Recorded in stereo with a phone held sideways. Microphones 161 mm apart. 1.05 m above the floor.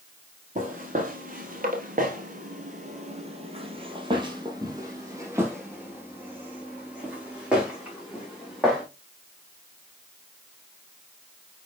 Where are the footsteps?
50° right (ahead or behind), 2 m; by 8.8 s centre (ahead or behind), 5 m.